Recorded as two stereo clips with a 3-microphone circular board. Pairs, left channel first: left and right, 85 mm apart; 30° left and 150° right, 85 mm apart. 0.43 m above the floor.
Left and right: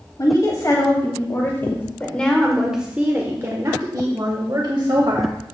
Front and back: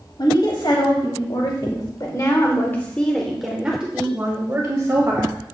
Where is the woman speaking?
50° left, 2.5 m; by 5.4 s 100° right, 2.5 m.